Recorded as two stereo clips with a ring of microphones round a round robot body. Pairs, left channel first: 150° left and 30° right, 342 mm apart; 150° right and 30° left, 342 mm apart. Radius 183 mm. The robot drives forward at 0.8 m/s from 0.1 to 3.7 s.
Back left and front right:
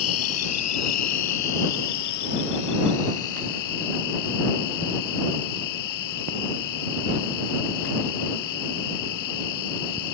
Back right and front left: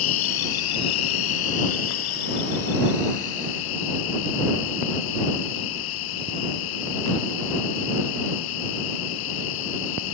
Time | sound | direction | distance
0.0 | an insect | 165° right | ?